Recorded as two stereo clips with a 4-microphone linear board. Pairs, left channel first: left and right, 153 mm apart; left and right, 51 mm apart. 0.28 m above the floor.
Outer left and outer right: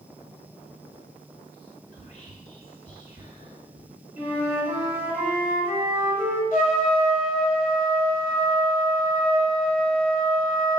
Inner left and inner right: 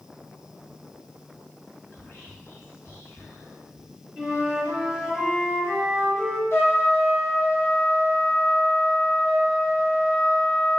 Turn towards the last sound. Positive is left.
turn(degrees=55)  # may be behind; listen again after turning